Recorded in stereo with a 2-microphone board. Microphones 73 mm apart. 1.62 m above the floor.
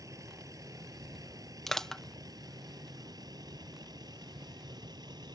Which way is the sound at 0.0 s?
50° right (ahead or behind).